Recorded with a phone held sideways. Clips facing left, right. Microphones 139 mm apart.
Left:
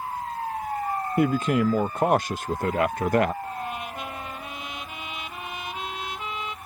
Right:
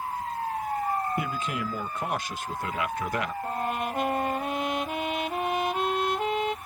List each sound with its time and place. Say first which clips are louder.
1.2 s a man speaking: left 9 dB; 50° left (ahead or behind)
3.4 s a trumpet: right 3 dB; 55° right (ahead or behind)